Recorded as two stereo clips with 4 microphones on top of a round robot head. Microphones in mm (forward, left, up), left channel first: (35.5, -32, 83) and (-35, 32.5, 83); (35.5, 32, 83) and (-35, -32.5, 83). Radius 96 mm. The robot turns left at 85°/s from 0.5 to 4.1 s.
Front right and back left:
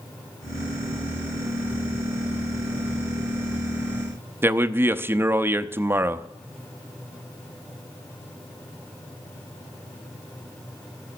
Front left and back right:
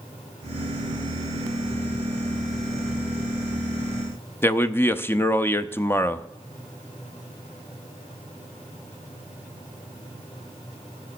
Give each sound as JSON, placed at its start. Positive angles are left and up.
{"t": 4.4, "sound": "a man speaking", "azimuth_deg": 90, "distance_m": 0.7}